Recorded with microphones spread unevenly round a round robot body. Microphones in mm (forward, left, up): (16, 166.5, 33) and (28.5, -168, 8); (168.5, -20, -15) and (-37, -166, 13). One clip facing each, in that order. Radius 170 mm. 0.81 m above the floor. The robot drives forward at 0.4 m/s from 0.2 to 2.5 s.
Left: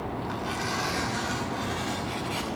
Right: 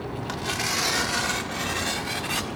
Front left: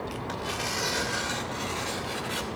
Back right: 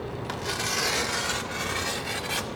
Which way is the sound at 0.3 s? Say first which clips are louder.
Even, back right 1 dB; 115° right.